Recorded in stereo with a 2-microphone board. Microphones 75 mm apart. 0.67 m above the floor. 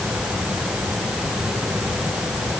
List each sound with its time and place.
Only background noise.